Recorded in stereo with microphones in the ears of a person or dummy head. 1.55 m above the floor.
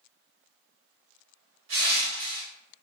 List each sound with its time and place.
1.7 s crushing: 75° right (ahead or behind), 1.6 m